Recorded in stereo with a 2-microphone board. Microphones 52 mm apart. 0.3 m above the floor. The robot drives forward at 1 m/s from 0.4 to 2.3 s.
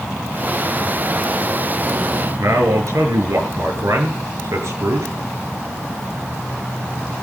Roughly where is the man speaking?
Right.